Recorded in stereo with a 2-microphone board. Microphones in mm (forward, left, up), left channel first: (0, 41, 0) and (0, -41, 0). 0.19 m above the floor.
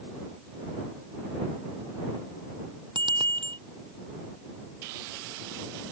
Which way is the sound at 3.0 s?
75° right (ahead or behind).